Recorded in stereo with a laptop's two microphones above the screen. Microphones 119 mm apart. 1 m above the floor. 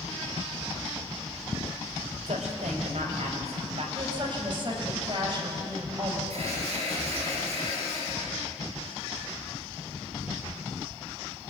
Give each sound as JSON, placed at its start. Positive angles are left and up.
{"t": 2.3, "sound": "a woman speaking", "side_deg": -75, "distance_m": 4.5}
{"t": 4.0, "sound": "a woman speaking", "side_deg": -45, "distance_m": 6.0}
{"t": 6.3, "sound": "an alarm", "side_deg": -65, "distance_m": 7.5}